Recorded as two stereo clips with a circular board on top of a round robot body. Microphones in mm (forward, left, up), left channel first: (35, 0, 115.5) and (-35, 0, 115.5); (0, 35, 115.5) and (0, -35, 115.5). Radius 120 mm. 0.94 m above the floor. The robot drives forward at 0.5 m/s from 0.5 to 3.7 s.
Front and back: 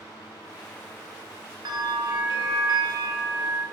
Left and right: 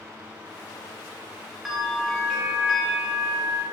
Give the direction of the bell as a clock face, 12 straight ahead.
6 o'clock.